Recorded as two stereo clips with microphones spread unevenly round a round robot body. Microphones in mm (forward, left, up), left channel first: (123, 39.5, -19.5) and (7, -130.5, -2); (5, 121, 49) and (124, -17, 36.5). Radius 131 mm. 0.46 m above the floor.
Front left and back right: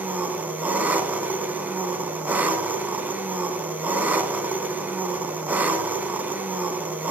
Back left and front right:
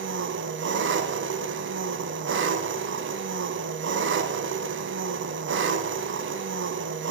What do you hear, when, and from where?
0.0 s an engine running: 40° right, 2 m